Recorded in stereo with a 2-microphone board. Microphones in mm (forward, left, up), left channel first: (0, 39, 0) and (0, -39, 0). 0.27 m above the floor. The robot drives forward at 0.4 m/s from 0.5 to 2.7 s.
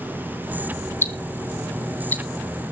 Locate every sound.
1.0 s ticking: 30° left (ahead or behind), 1.2 m; by 2.2 s 25° left (ahead or behind), 1.5 m